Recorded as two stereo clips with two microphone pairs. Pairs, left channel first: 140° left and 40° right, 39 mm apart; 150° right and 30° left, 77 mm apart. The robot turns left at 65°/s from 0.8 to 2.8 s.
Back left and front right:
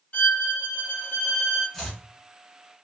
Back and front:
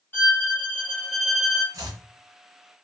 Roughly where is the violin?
Behind.